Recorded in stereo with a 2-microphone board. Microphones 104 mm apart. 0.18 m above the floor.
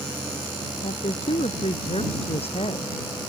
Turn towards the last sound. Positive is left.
turn(degrees=70)  # may be behind; listen again after turning